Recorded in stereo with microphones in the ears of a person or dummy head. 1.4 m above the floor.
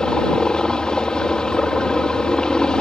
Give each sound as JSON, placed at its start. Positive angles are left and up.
{"t": 0.0, "sound": "a helicopter", "side_deg": 5}